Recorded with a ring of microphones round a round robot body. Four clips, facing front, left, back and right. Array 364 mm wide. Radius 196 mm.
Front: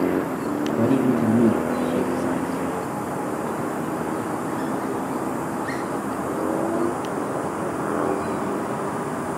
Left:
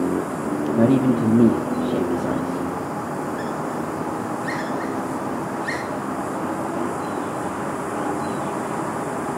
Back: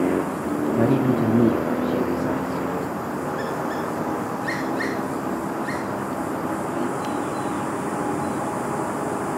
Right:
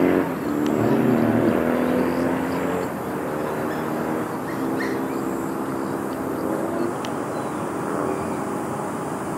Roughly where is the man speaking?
Left.